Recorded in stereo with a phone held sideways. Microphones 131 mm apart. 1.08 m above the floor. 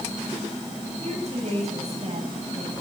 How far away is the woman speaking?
About 7 m.